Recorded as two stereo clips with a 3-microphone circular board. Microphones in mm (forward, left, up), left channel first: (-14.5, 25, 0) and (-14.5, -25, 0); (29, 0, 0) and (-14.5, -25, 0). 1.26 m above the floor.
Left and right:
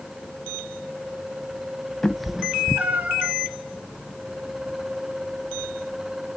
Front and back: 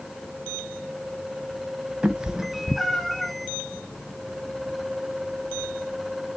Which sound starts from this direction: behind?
A cat meowing, at 2.0 s.